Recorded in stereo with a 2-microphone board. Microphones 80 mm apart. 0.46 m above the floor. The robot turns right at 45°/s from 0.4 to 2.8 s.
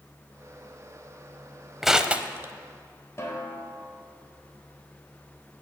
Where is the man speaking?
I don't hear a man speaking.